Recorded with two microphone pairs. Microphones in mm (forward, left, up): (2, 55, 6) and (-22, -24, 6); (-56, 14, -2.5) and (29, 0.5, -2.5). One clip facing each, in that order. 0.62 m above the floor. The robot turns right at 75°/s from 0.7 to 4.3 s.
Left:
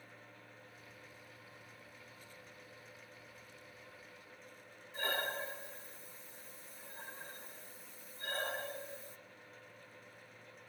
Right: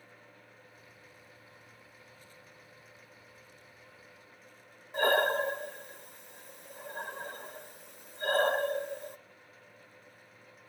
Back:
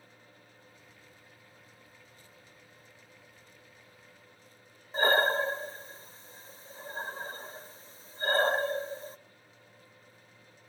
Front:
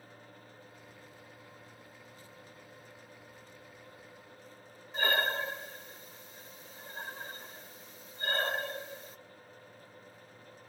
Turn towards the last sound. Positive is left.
turn(degrees=-130)